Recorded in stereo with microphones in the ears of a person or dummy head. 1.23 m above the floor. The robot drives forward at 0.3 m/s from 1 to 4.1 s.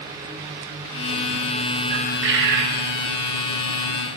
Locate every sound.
1.9 s a bird: 60° right (ahead or behind), 1.0 m